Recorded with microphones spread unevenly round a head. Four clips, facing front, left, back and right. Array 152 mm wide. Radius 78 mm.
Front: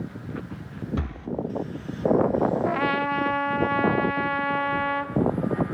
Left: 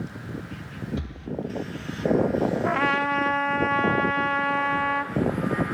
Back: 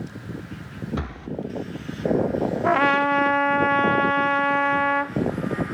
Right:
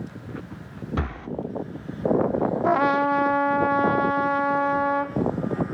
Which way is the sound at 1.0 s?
105° right.